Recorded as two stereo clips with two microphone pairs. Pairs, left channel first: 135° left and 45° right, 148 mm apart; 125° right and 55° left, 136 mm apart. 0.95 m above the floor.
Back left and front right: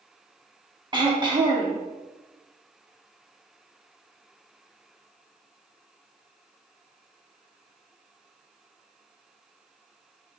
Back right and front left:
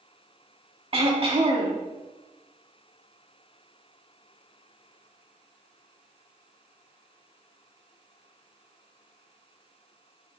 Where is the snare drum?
No snare drum in this recording.